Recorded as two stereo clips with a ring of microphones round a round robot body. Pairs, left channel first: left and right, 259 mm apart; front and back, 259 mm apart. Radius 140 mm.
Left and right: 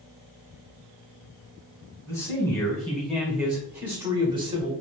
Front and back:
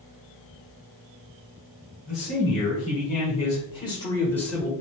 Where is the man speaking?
25° left, 1.6 m; by 4.7 s 85° right, 1.3 m.